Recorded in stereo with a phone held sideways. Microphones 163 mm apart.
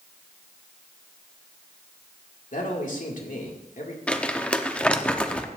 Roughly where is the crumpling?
Centre.